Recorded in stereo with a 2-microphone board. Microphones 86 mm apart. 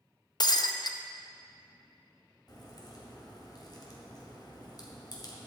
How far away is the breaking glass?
About 0.6 m.